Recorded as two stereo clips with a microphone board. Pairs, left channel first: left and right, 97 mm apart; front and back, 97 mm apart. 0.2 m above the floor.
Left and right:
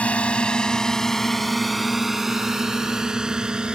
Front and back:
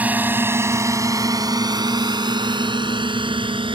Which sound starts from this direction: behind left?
A drone, at 0.0 s.